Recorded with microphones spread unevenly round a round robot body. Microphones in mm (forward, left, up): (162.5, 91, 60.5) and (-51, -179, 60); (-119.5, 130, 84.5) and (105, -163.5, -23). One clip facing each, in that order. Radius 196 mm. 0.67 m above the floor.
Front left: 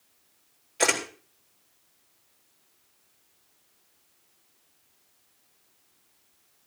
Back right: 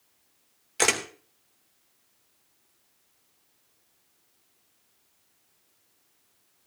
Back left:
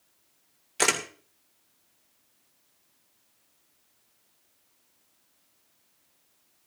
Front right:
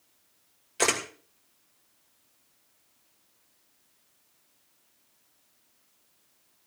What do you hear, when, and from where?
0.8 s a camera shutter: 155° right, 2.5 m